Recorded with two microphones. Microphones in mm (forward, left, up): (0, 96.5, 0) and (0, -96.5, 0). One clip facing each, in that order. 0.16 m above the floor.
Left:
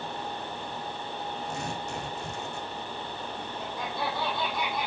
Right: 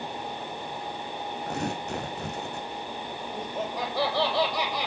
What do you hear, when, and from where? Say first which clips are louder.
1.5 s tearing paper: right 4 dB; 60° right (ahead or behind), 2.5 m
3.3 s laughter: right 5 dB; 75° right (ahead or behind), 5 m